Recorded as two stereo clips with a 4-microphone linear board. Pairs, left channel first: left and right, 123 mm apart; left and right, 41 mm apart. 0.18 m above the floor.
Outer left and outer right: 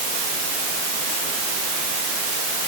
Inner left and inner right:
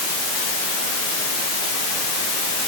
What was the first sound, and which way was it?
Only background noise.